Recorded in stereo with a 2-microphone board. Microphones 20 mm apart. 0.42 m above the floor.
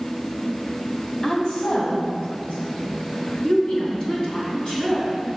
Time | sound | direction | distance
1.2 | a woman speaking | 60° left (ahead or behind) | 3 m